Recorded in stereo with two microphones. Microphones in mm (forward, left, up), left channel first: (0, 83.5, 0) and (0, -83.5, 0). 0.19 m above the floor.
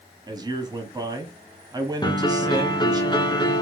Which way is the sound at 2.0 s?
25° left (ahead or behind).